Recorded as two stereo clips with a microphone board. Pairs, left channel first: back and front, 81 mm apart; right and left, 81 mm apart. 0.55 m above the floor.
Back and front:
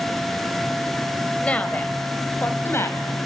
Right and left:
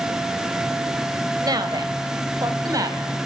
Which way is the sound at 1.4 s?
105° left.